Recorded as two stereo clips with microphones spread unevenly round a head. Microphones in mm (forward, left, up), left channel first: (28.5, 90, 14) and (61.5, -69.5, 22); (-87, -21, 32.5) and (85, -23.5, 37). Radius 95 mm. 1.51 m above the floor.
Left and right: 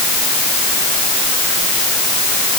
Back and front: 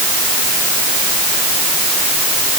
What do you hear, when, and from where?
Only background noise.